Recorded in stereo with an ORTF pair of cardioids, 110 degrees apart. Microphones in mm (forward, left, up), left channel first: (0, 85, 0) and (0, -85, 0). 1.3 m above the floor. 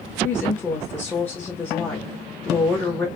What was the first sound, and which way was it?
A woman speaking, 10° left.